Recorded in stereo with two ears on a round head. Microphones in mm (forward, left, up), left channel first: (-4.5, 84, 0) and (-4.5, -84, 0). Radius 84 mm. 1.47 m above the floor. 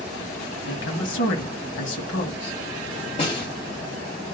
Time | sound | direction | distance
0.7 | a woman speaking | 70° left (ahead or behind) | 1.7 m
3.2 | a snare drum | 30° left (ahead or behind) | 1.4 m